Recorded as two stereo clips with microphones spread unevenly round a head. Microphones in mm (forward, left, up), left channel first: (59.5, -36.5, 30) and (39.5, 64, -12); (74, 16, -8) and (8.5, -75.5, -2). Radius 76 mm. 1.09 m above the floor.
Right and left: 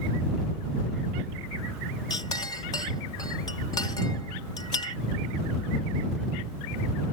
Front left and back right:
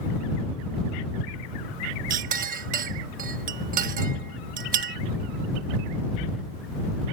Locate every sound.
2.1 s a clink: 145° right